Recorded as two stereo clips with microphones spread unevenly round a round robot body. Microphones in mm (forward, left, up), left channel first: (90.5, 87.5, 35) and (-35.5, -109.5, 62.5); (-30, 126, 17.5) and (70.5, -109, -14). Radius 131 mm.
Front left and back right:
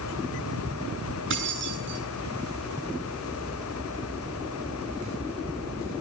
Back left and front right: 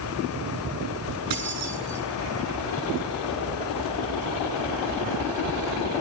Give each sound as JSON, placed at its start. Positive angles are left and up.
{"t": 1.3, "sound": "keys jangling", "azimuth_deg": -80, "distance_m": 8.0}